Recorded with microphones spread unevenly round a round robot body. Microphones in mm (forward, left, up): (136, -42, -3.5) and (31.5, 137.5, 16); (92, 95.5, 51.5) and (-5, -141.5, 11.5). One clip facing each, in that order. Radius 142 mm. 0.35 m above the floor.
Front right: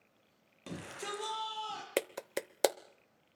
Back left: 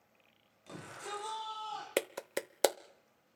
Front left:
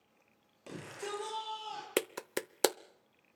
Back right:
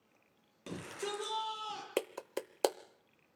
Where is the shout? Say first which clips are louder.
Front right 4 dB, back right 1 dB; 55° right, 9 m.